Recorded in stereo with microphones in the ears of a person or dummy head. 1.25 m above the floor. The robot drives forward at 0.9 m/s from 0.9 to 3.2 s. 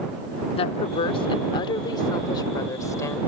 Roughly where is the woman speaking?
Left.